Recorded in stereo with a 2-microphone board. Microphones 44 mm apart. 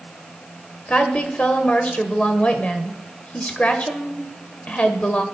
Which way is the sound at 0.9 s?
35° left (ahead or behind).